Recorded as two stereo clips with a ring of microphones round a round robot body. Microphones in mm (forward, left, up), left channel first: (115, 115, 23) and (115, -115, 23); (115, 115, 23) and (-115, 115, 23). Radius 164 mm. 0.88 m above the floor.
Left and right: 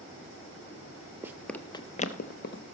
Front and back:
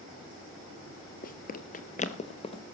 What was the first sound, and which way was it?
Running footsteps, 15° right.